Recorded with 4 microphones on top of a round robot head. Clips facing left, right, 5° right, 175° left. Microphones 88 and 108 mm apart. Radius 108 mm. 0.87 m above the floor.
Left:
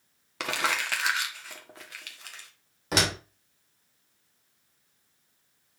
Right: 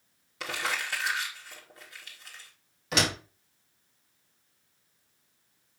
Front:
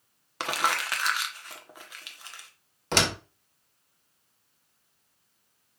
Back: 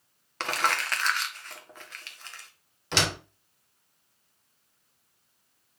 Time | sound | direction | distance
0.4 | crumpling | 75° left | 1.6 m
2.9 | a door slam | 35° left | 2.5 m